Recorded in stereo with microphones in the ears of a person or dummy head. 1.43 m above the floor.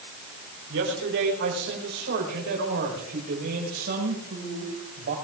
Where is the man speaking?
70° right (ahead or behind), 4.5 m; by 5.1 s 50° right (ahead or behind), 7 m.